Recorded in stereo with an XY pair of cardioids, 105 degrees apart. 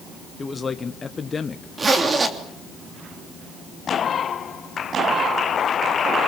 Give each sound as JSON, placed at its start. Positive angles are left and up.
{"t": 0.4, "sound": "a man speaking", "azimuth_deg": 30, "distance_m": 1.5}
{"t": 1.8, "sound": "a zipper", "azimuth_deg": -30, "distance_m": 3.0}